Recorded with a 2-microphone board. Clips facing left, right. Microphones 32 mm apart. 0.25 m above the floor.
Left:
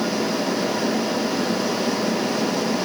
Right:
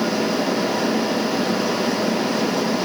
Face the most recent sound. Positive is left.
No sound to turn to.